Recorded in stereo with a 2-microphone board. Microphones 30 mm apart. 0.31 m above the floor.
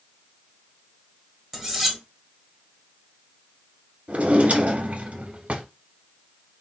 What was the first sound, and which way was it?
Cutlery clinking, 10° right (ahead or behind).